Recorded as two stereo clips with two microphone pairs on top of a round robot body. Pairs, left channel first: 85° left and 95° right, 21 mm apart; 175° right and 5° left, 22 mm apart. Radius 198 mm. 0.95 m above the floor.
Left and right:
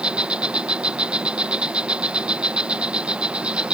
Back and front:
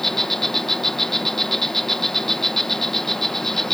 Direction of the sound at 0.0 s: 105° right.